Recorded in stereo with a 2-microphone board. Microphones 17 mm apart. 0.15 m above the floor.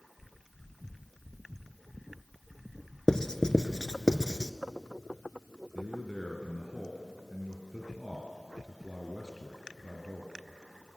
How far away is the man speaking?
About 2 m.